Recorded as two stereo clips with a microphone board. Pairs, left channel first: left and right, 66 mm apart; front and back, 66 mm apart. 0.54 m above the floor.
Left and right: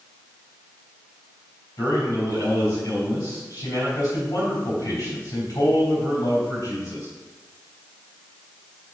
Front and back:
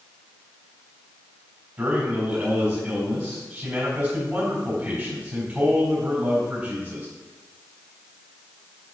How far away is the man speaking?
About 3.5 m.